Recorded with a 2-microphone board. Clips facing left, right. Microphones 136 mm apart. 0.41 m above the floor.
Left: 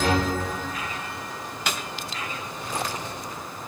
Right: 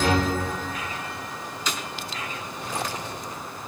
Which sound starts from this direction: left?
A snare drum, at 1.7 s.